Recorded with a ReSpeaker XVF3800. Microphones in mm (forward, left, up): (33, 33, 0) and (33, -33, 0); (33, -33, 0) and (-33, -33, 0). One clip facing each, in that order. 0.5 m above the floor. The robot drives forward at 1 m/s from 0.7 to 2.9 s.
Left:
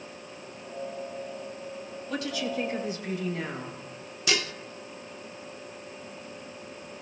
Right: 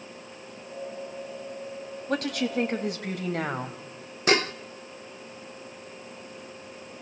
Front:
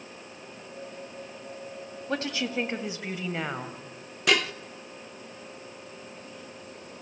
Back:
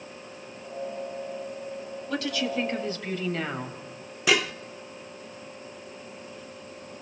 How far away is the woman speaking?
About 2.5 m.